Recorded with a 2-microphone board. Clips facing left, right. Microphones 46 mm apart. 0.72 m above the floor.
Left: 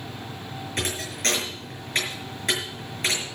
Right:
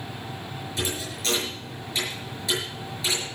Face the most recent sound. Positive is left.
turn(degrees=55)  # may be behind; listen again after turning